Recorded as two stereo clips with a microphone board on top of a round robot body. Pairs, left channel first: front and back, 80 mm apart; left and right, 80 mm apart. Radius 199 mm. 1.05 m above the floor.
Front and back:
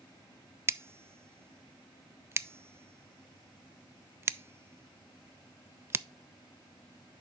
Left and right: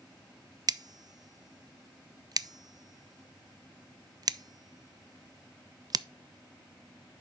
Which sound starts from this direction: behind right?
Scissors, at 0.7 s.